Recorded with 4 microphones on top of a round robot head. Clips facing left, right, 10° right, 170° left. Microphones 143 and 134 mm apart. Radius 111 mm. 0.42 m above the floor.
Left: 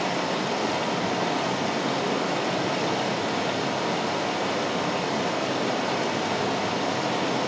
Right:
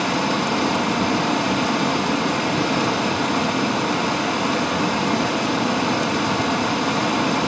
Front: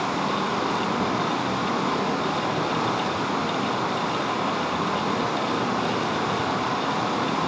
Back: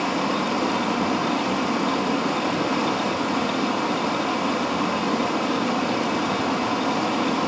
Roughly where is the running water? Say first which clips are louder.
Right 5 dB, back 2 dB; right.